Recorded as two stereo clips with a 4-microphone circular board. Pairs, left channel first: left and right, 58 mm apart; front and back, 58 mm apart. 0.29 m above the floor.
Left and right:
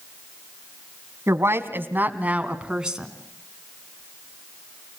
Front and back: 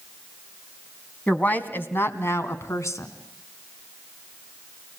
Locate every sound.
1.3 s a woman speaking: 65° right, 2 m; by 3.1 s 10° right, 3 m